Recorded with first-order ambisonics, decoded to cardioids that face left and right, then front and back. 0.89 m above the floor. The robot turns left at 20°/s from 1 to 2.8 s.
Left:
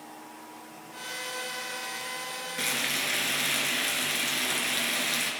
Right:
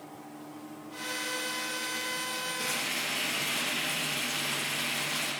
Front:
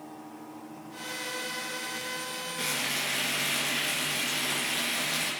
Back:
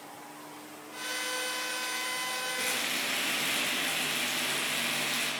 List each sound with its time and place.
2.6 s frying: 90° left, 3.5 m; by 5.3 s 85° left, 3.5 m